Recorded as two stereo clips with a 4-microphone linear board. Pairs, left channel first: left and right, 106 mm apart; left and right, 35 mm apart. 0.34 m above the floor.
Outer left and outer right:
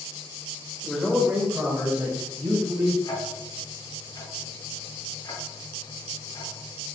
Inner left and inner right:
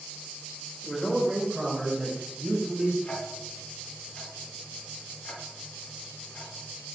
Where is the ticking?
35° left (ahead or behind), 1.6 m.